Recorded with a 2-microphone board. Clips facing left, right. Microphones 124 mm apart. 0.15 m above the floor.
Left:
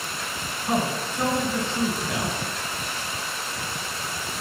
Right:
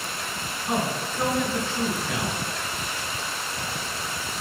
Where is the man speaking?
Centre (ahead or behind), 2.5 m.